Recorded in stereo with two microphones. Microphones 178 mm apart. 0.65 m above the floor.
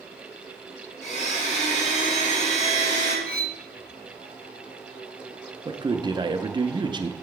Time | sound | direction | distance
1.0 | a blender | 40° left (ahead or behind) | 2.5 m
3.2 | cutlery clinking | 60° right (ahead or behind) | 0.8 m
5.7 | a man speaking | 25° right (ahead or behind) | 0.6 m